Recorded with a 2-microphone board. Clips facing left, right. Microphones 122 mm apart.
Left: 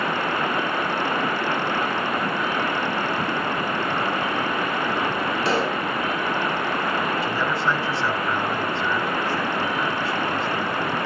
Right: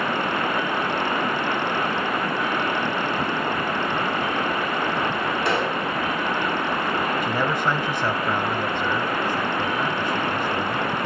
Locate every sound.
5.5 s a pop: 30° left (ahead or behind), 3.5 m
7.2 s a man speaking: 15° right (ahead or behind), 3 m